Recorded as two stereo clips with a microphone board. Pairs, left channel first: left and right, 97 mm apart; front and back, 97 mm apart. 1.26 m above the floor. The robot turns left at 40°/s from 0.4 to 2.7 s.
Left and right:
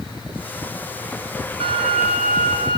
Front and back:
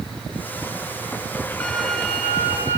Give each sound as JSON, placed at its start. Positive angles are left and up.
{"t": 1.6, "sound": "a violin", "azimuth_deg": -75, "distance_m": 2.5}